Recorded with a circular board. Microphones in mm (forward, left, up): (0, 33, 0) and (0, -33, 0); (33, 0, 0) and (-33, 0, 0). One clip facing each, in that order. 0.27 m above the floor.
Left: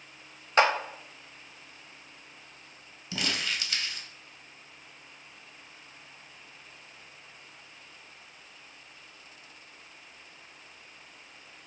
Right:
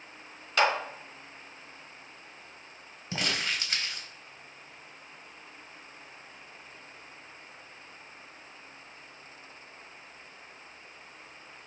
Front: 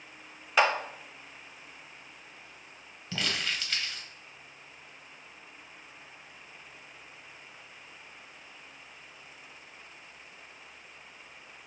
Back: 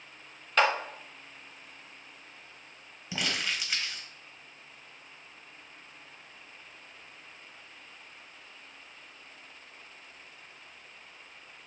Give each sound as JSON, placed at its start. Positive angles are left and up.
{"t": 0.6, "sound": "a clap", "azimuth_deg": 70, "distance_m": 0.7}
{"t": 3.1, "sound": "crumpling", "azimuth_deg": -110, "distance_m": 1.1}